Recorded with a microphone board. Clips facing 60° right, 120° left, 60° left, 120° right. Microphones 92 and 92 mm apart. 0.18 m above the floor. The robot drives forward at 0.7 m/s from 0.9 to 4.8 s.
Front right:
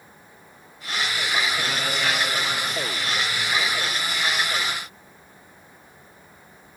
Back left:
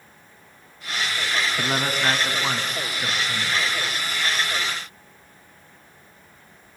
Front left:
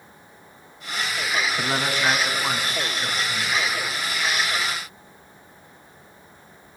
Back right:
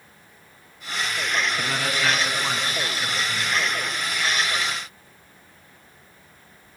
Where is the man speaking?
110° left, 2 m; by 3.6 s 145° left, 2.5 m.